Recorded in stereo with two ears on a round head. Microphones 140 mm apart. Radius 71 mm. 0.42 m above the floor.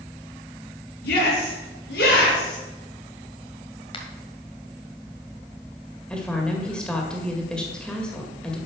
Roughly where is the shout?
Left.